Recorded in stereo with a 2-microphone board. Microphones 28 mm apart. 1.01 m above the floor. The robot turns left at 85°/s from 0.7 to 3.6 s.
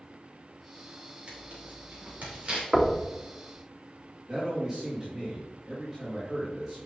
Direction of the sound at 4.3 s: 15° right (ahead or behind).